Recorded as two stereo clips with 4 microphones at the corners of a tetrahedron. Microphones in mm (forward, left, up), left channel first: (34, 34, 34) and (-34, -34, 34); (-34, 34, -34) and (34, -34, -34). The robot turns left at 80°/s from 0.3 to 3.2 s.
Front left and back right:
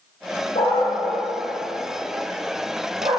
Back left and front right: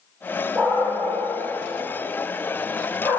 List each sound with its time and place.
0.6 s a dog barking: 35° left, 8 m; by 3.2 s 175° right, 8 m